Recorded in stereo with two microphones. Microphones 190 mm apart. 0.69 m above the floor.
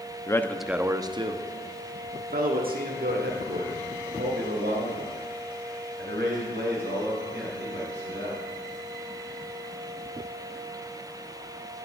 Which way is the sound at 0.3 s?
20° left (ahead or behind).